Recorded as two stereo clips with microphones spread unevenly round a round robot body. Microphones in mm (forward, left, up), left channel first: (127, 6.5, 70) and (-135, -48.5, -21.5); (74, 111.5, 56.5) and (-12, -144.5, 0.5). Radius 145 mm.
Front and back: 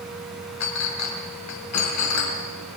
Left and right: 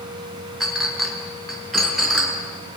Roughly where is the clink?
Ahead.